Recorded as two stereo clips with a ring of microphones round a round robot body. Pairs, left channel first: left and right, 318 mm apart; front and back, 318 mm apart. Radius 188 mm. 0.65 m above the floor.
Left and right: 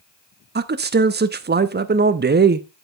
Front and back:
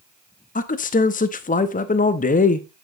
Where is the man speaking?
50° right, 0.9 m.